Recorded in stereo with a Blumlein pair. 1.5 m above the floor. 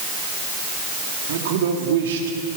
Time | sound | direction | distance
1.3 | a man speaking | 60° right | 4 m